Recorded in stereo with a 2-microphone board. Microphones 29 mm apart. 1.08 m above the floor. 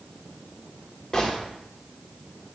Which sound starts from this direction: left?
A gunshot, at 1.1 s.